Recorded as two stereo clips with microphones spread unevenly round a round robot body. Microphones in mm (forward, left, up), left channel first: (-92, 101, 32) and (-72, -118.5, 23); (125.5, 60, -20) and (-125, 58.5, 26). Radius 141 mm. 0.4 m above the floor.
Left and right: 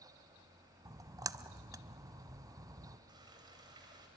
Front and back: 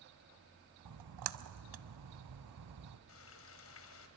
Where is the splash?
160° right, 0.7 m.